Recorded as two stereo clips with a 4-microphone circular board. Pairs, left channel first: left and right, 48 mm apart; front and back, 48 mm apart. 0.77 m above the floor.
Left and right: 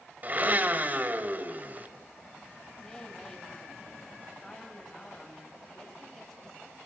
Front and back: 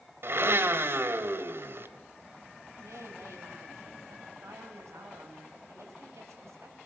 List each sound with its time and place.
0.2 s a blender: 145° right, 2.0 m
2.8 s a woman speaking: 170° left, 5.5 m